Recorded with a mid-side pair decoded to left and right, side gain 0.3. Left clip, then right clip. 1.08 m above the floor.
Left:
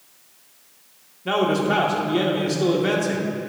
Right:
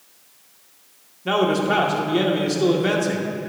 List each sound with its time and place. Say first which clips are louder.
1.2 s a man speaking: right 1 dB; 15° right, 2 m